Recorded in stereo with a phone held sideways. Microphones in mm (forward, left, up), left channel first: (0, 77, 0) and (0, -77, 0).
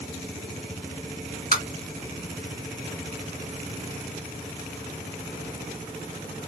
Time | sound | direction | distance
1.5 | tapping | 65° left (ahead or behind) | 1.7 m